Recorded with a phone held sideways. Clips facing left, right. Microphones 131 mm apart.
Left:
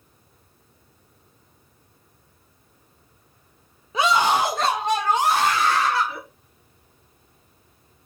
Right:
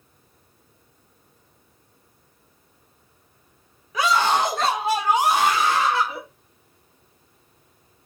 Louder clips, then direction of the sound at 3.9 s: Left 1 dB; 25° left (ahead or behind).